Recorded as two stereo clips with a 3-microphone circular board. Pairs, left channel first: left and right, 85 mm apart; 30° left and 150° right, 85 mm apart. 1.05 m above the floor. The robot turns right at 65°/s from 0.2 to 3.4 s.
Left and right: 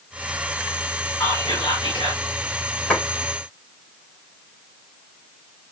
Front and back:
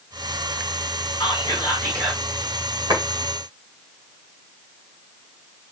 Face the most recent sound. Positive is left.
turn(degrees=-155)